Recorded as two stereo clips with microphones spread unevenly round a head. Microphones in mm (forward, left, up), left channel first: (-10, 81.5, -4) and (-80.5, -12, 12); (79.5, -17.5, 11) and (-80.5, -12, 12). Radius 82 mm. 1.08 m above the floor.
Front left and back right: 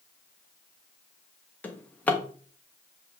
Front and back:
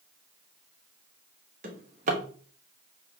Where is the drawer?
135° left, 0.8 m.